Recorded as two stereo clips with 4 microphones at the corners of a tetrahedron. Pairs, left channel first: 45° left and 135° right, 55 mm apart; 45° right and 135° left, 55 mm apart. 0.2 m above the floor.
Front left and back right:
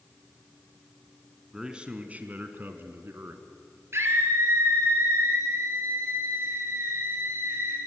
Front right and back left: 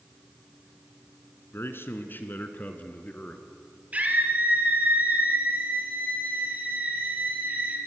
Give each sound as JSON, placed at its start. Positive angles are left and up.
{"t": 1.5, "sound": "a man speaking", "azimuth_deg": -60, "distance_m": 1.8}
{"t": 3.9, "sound": "a scream", "azimuth_deg": -165, "distance_m": 3.5}